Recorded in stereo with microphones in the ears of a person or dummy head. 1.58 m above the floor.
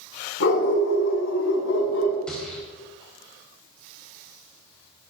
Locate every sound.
0.4 s a dog barking: 80° left, 5 m; by 2.2 s 75° left (ahead or behind), 5 m
2.3 s a gunshot: 10° left (ahead or behind), 4 m